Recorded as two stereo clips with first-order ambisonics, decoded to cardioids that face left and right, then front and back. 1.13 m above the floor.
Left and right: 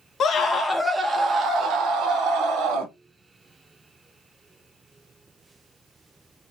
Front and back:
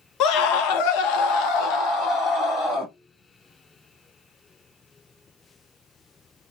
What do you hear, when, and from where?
0.2 s a scream: 35° left, 0.9 m; by 2.9 s 55° right, 1.9 m